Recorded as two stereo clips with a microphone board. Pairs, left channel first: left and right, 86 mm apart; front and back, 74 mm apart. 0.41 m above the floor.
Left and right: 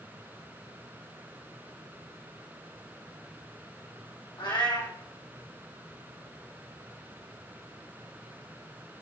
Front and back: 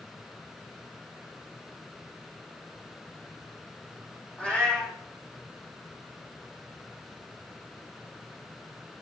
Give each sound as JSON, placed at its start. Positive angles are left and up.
{"t": 4.4, "sound": "a cat meowing", "azimuth_deg": 70, "distance_m": 3.5}